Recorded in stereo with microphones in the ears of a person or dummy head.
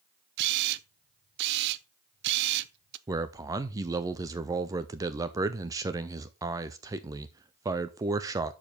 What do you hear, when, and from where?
0.4 s a camera shutter: 60° right (ahead or behind), 0.6 m
3.1 s a man speaking: 20° right (ahead or behind), 0.6 m